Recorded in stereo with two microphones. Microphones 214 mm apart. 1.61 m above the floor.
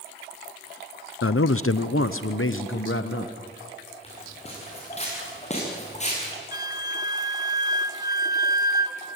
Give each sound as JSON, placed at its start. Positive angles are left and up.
{"t": 1.2, "sound": "a man speaking", "side_deg": 85, "distance_m": 0.6}
{"t": 4.0, "sound": "footsteps", "side_deg": 30, "distance_m": 7.5}
{"t": 6.5, "sound": "a flute", "side_deg": -15, "distance_m": 0.9}